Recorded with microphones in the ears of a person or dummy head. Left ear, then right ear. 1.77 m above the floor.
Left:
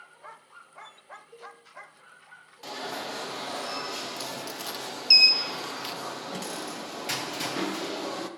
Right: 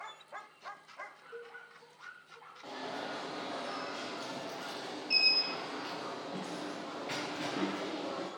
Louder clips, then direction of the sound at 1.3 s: Left 2 dB; 10° left (ahead or behind).